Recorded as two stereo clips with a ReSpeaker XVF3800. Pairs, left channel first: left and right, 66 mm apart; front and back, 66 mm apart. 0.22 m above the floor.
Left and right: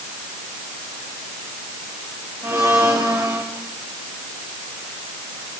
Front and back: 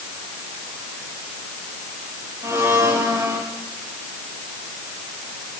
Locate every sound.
2.4 s a blender: 130° right, 5.5 m